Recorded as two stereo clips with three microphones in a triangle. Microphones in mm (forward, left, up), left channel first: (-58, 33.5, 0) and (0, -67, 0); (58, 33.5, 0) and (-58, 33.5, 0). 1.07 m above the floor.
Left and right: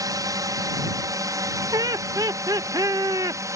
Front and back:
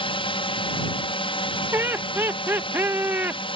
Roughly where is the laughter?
Behind right.